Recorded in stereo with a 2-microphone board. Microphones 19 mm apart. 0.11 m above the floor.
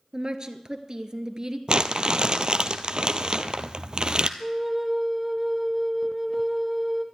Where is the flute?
10° right (ahead or behind), 1.5 m.